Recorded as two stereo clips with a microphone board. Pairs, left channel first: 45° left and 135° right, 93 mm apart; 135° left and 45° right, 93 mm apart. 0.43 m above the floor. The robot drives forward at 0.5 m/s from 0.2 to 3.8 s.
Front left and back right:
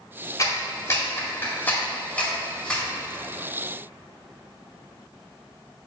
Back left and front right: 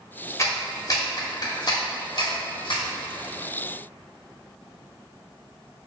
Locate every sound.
0.4 s a clap: 85° left, 1.8 m; by 2.8 s 125° left, 2 m